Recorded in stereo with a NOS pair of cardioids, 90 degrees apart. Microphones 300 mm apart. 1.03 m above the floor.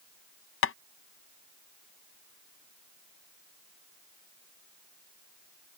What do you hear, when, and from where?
0.6 s tapping: 50° left